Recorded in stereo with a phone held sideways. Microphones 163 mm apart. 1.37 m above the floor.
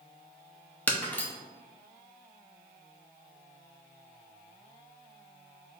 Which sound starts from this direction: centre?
Breaking glass, at 0.9 s.